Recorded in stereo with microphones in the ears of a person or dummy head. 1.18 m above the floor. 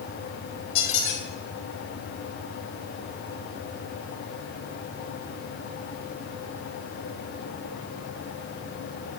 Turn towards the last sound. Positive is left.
turn(degrees=75)  # may be behind; listen again after turning